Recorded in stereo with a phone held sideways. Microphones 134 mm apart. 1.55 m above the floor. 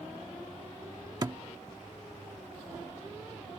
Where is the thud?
30° right (ahead or behind).